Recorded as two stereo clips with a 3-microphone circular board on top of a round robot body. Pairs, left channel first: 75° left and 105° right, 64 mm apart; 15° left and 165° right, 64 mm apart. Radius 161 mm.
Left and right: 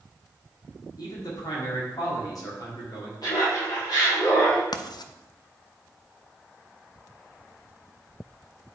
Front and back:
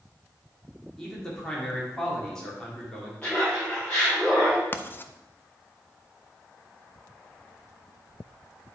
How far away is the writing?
About 0.5 m.